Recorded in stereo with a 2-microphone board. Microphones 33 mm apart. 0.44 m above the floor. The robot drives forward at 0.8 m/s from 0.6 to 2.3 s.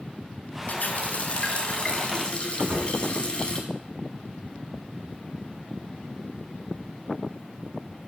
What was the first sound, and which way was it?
A running tap, 55° left (ahead or behind).